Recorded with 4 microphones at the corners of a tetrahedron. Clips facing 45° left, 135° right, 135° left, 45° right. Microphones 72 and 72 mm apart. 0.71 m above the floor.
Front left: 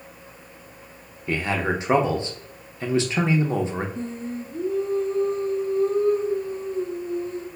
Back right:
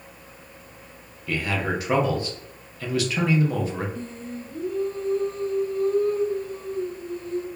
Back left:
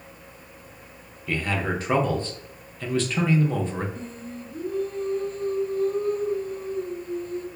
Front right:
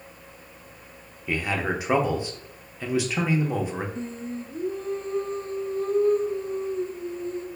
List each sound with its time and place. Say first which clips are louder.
1.3 s a man speaking: front left 2 dB, even; 20° left, 0.6 m
4.0 s singing: front left 4 dB, front right 4 dB; 10° right, 0.6 m